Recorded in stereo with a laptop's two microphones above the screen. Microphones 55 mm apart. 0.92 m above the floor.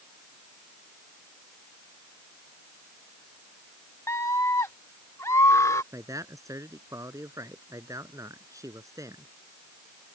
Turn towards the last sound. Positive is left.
turn(degrees=-75)  # may be behind; listen again after turning